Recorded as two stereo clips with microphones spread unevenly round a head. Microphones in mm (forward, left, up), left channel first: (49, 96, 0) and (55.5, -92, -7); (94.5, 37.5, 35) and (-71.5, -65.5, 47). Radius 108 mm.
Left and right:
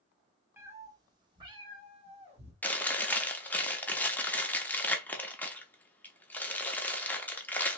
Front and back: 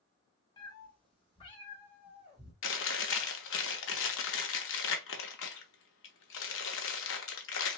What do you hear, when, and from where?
0.6 s a cat meowing: 20° right, 1.0 m; by 2.5 s 30° right, 1.9 m
2.6 s chewing: 10° left, 0.8 m